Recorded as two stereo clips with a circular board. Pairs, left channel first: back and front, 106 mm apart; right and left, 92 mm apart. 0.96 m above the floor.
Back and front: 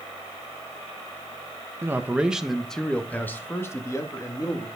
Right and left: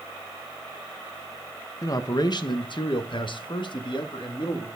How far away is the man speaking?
About 0.9 m.